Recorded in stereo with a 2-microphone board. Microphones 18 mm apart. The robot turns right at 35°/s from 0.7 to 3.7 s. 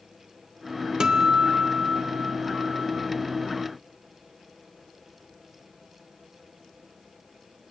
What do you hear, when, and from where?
1.0 s a guitar: 140° right, 1.2 m; by 3.1 s 65° right, 1.2 m